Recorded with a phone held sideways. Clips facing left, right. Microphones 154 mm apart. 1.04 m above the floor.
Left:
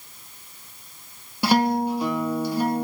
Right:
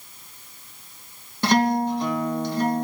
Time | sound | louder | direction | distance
1.4 | a guitar | even | 10° left (ahead or behind) | 1.8 m